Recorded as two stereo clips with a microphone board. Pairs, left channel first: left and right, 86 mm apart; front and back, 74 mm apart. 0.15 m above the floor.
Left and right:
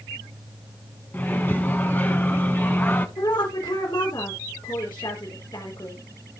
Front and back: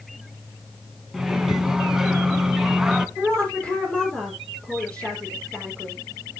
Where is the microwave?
110° left, 0.9 m.